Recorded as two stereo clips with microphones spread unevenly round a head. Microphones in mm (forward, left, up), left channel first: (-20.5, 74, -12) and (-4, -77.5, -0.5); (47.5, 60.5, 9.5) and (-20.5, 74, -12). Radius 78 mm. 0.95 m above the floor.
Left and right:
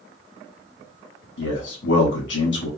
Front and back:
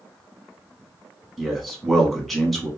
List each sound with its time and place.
1.4 s a man speaking: 80° left, 1.4 m